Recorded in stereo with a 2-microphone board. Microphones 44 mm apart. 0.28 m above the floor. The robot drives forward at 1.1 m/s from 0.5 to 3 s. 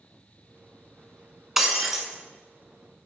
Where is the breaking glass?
5° right (ahead or behind), 0.6 m; by 2.1 s centre (ahead or behind), 1.2 m.